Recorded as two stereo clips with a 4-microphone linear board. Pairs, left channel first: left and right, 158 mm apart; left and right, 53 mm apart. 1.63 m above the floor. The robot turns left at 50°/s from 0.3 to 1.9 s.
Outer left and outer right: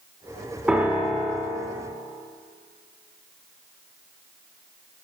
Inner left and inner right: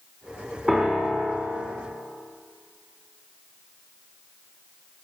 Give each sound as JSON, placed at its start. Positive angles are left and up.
{"t": 0.7, "sound": "a piano", "azimuth_deg": -5, "distance_m": 1.0}